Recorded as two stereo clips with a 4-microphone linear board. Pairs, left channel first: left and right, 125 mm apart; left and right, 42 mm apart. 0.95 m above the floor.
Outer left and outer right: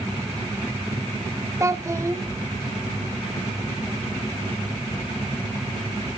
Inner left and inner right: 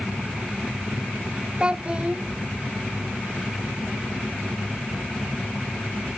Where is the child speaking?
25° right (ahead or behind), 0.8 m.